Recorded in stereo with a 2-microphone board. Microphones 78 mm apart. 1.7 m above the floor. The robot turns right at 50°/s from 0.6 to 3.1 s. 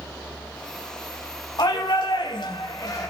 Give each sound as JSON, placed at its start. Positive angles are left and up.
{"t": 1.6, "sound": "a shout", "azimuth_deg": 65, "distance_m": 3.0}